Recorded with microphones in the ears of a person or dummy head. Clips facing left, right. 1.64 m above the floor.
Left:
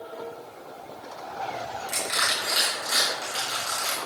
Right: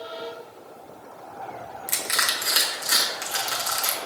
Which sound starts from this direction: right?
Crushing, at 1.9 s.